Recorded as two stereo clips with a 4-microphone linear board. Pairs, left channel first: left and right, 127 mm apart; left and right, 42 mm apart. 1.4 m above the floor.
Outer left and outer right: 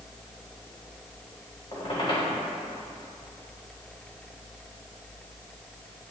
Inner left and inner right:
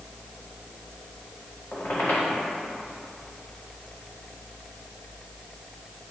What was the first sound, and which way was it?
A squeak, 45° left (ahead or behind).